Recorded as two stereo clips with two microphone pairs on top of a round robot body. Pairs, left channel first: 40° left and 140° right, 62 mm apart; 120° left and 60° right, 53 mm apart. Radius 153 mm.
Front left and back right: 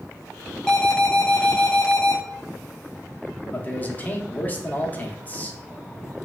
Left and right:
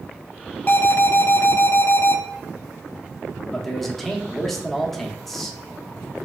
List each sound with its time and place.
0.7 s an alarm: 115° left, 1.2 m
3.5 s a man speaking: 45° left, 0.8 m